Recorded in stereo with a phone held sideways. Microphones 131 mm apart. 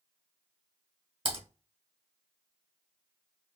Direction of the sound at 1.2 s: 45° right (ahead or behind).